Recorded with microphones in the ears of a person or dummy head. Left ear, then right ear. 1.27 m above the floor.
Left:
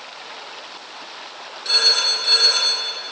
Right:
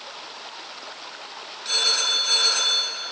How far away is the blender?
No blender in this recording.